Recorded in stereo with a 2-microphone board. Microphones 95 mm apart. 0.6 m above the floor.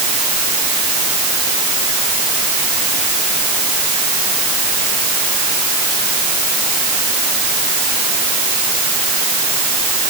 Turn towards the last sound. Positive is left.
No sound to turn to.